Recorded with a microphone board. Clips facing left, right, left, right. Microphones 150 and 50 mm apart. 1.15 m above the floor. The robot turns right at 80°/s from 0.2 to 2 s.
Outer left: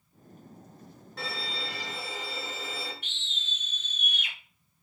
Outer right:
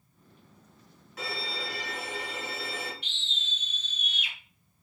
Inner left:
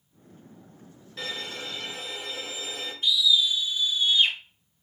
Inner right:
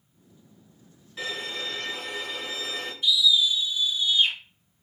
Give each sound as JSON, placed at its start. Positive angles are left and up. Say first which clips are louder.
{"t": 1.2, "sound": "a violin", "louder": "outer right 1 dB, inner right 2 dB", "azimuth_deg": -175, "distance_m": 2.5}
{"t": 3.0, "sound": "a scream", "louder": "outer right 1 dB, inner right 1 dB", "side_deg": 45, "distance_m": 1.9}